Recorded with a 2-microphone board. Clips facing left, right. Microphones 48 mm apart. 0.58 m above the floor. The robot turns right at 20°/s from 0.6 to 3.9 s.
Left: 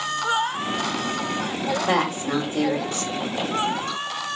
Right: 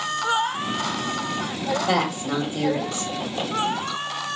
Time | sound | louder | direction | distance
1.9 | a woman speaking | left 2 dB | 40° left (ahead or behind) | 1.7 m